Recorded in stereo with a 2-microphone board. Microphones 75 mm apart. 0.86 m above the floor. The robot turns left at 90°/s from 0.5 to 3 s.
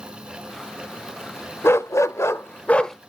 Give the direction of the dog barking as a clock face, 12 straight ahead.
8 o'clock.